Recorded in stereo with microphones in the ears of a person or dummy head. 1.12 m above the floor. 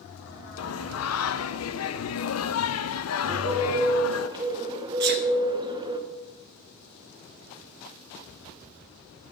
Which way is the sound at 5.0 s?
55° right (ahead or behind).